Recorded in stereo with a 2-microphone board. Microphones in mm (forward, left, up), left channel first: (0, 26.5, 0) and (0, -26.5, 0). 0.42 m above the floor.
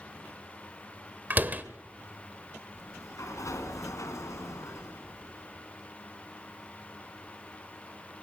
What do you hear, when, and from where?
1.3 s a door slam: 35° right (ahead or behind), 1.3 m
2.8 s a sliding door: 75° left (ahead or behind), 3 m